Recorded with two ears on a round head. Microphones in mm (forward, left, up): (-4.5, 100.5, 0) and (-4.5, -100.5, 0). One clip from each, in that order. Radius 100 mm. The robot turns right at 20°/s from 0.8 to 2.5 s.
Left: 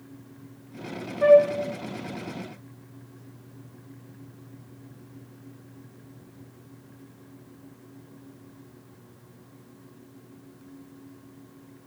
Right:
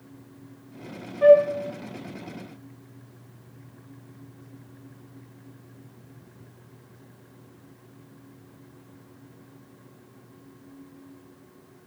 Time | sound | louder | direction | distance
1.2 | a flute | right 1 dB | 5° right (ahead or behind) | 0.5 m